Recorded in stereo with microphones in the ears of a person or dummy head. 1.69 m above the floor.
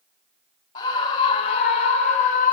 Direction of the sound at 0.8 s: 35° left (ahead or behind).